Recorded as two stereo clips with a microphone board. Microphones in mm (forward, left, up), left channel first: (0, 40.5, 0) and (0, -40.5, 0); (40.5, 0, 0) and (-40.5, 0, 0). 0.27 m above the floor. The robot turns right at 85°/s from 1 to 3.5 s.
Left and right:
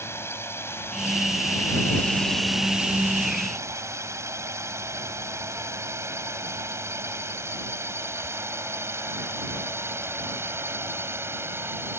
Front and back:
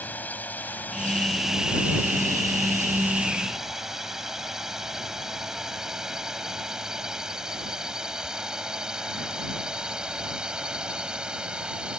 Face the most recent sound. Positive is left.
turn(degrees=-110)